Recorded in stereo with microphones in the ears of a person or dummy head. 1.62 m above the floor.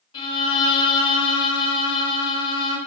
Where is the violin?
30° left (ahead or behind), 3.5 m.